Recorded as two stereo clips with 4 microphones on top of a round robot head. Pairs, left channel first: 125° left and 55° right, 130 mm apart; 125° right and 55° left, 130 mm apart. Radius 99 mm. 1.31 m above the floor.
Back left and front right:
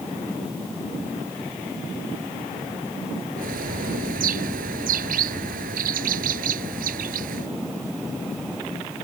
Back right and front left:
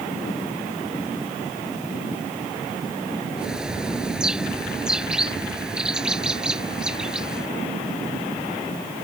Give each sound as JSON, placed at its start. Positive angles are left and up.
{"t": 3.4, "sound": "a bird", "azimuth_deg": -30}